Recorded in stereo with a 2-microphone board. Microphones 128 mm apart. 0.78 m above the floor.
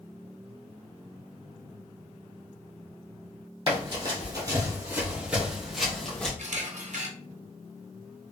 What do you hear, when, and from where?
3.7 s running footsteps: 45° right (ahead or behind), 1.7 m; by 6.3 s 10° left (ahead or behind), 1.7 m
6.4 s a camera shutter: 65° right (ahead or behind), 0.8 m